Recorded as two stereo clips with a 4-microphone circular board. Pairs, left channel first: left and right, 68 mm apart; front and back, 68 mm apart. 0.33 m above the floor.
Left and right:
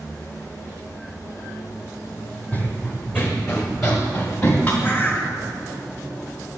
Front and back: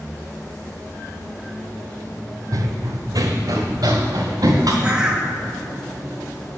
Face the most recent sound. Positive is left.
turn(degrees=115)